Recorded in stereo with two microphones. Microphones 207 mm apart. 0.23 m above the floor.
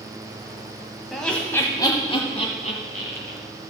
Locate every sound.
1.1 s laughter: centre (ahead or behind), 1.1 m; by 3.4 s 50° left (ahead or behind), 1.6 m